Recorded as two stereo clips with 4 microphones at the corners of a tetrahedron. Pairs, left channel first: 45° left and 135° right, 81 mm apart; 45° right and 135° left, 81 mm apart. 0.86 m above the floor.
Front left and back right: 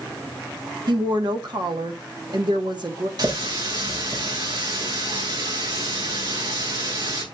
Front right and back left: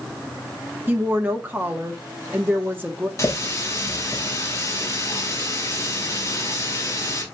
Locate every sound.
0.9 s a woman speaking: 160° right, 1.4 m
3.2 s a running tap: 100° right, 2.5 m